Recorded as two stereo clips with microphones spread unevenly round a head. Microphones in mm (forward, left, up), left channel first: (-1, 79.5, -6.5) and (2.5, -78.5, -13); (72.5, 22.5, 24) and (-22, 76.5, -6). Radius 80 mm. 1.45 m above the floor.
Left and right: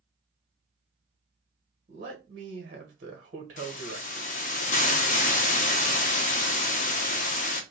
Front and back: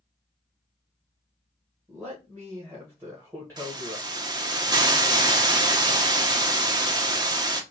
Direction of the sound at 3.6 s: 95° left.